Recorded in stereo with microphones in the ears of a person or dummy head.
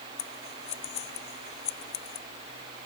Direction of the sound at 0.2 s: 25° left (ahead or behind).